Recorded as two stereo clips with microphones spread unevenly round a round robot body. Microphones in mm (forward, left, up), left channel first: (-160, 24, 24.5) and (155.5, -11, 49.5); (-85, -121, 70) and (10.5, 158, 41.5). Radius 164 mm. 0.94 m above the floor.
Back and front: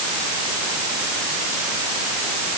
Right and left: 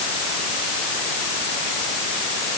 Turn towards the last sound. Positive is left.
No sound to turn to.